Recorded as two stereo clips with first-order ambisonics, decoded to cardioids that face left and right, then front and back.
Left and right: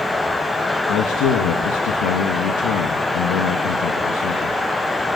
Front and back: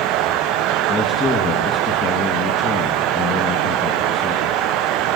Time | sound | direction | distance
0.9 | a man speaking | 65° left | 2 m